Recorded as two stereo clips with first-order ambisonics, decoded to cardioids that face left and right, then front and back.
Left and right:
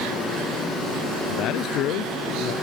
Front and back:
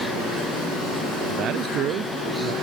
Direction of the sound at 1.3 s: 130° left.